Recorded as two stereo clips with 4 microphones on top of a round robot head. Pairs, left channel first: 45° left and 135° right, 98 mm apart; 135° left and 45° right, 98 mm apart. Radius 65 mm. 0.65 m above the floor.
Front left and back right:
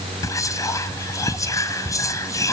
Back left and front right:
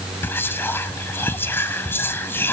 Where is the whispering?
80° left, 0.6 m.